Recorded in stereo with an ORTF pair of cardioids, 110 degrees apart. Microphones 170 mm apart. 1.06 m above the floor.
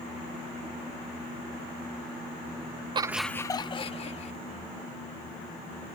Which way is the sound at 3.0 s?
30° right.